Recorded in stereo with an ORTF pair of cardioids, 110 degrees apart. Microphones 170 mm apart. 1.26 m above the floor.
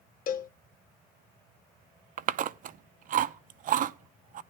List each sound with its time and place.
0.3 s a cowbell: 55° left, 0.8 m
2.2 s chewing: 50° right, 0.7 m